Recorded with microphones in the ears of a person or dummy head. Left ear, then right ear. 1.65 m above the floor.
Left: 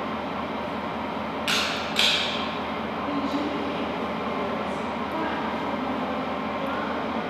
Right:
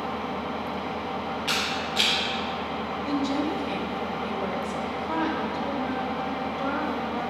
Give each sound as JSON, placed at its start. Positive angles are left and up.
{"t": 0.0, "sound": "an engine running", "side_deg": 10, "distance_m": 1.9}
{"t": 1.5, "sound": "a camera shutter", "side_deg": 20, "distance_m": 1.1}
{"t": 3.0, "sound": "a woman speaking", "side_deg": -45, "distance_m": 0.9}